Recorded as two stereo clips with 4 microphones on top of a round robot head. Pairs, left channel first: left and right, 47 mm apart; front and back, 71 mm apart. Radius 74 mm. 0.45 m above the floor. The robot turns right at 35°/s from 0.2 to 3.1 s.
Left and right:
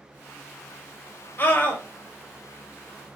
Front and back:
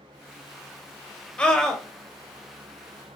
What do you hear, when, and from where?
1.4 s a scream: 65° left, 1.0 m; by 1.8 s 80° left, 1.0 m